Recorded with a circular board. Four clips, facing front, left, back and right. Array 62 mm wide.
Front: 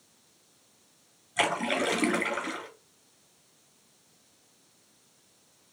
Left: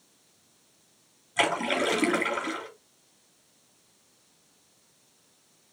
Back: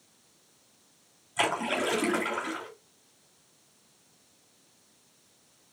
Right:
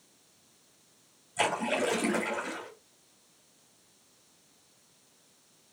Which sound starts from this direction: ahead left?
A splash, at 1.4 s.